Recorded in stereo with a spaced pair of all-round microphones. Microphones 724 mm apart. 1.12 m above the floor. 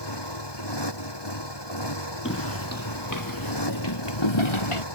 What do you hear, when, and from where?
0.0 s a motorcycle: 35° left (ahead or behind)
2.2 s footsteps: 15° left (ahead or behind); by 4.8 s 45° left (ahead or behind)